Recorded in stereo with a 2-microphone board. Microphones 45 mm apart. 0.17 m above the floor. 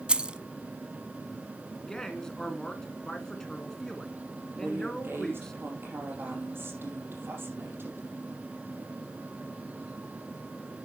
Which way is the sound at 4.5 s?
55° right (ahead or behind).